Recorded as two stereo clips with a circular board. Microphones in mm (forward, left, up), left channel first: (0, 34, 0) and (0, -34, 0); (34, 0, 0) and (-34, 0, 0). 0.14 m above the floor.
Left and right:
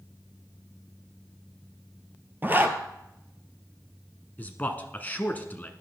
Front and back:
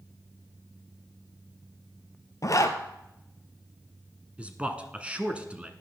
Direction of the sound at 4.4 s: 125° left.